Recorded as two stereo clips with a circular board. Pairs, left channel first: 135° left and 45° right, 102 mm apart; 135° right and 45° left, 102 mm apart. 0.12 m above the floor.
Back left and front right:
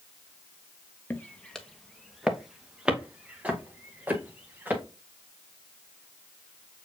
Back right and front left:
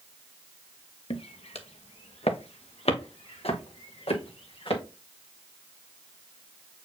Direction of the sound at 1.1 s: 155° right.